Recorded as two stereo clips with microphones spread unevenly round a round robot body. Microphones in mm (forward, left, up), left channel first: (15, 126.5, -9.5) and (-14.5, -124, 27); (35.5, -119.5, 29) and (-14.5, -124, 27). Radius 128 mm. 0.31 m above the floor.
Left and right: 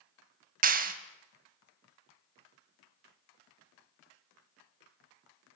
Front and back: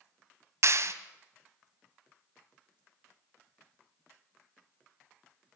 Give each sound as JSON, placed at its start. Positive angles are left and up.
{"t": 0.6, "sound": "a clap", "azimuth_deg": -160, "distance_m": 2.5}